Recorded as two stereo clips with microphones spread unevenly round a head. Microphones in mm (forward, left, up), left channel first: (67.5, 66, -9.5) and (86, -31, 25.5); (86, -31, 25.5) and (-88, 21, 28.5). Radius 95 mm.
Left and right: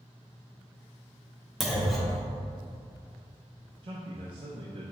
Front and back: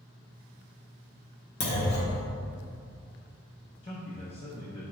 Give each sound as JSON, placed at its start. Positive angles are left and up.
{"t": 1.6, "sound": "a clunk", "azimuth_deg": -10, "distance_m": 1.2}
{"t": 3.8, "sound": "a man speaking", "azimuth_deg": -75, "distance_m": 1.1}